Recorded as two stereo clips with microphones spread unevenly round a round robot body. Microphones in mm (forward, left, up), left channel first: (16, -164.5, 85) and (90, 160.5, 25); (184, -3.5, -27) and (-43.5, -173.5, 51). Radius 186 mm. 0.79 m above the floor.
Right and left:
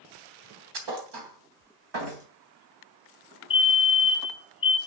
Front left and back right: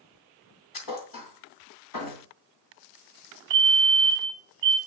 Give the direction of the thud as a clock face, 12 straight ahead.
10 o'clock.